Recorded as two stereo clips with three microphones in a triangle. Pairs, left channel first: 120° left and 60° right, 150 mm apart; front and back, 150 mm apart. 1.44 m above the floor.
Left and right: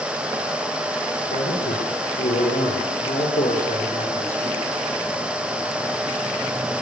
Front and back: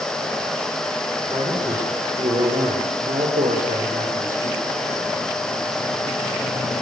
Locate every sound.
1.3 s a man speaking: 115° left, 5.5 m; by 4.6 s 165° left, 6.5 m